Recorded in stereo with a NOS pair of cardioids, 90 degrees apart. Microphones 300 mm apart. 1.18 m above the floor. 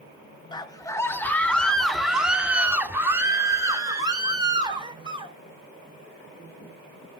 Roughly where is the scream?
Ahead.